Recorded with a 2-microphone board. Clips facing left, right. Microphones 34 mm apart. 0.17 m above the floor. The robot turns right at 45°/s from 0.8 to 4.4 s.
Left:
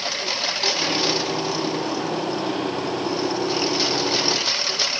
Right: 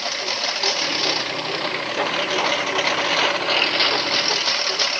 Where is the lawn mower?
175° right; by 5.0 s 10° right.